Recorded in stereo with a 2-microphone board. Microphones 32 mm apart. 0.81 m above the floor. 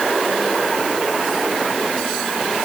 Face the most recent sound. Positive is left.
No sound to turn to.